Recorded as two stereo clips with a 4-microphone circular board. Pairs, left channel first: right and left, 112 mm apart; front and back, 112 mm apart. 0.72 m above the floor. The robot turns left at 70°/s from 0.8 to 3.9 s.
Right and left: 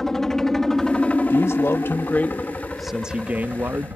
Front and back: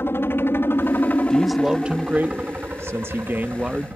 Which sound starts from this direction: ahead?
A helicopter, at 0.0 s.